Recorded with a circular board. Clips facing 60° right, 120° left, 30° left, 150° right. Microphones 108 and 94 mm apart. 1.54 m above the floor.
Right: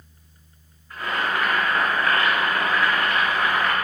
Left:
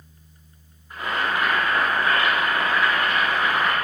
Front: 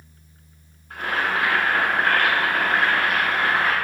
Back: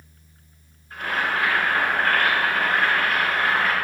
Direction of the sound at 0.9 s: 45° left.